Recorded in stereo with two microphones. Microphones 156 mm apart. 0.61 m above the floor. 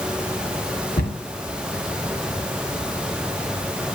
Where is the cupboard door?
85° left, 1.7 m.